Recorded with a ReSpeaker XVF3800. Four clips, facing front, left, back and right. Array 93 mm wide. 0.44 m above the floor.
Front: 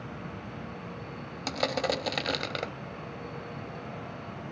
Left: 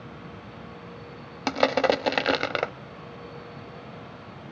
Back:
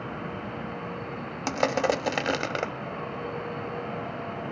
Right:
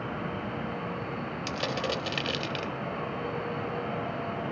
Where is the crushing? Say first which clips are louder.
Left 11 dB, back 5 dB; 110° left, 0.6 m.